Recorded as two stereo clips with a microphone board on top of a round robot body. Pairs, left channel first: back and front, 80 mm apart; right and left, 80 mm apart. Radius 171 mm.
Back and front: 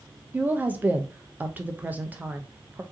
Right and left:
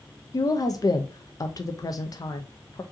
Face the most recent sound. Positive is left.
turn(degrees=-65)